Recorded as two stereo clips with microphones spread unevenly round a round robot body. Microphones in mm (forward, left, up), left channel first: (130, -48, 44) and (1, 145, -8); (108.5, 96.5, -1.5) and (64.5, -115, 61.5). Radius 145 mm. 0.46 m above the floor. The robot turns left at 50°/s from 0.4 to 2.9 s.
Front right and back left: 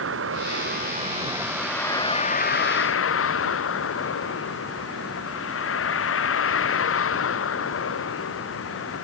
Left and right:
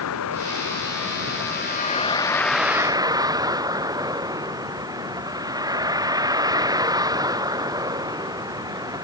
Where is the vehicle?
95° left; by 9.1 s 30° right.